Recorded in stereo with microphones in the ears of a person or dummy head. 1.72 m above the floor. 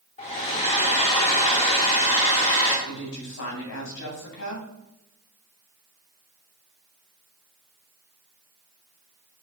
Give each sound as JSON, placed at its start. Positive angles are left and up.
{"t": 0.2, "sound": "a hair dryer", "side_deg": 25, "distance_m": 1.5}
{"t": 2.9, "sound": "a woman speaking", "side_deg": 75, "distance_m": 2.5}